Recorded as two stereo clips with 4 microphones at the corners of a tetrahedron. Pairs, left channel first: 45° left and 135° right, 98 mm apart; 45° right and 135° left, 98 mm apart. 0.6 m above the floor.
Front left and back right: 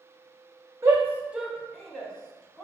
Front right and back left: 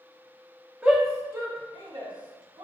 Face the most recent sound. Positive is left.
turn(degrees=120)